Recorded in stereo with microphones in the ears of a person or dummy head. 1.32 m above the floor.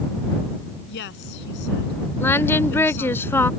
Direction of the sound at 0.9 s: 65° left (ahead or behind).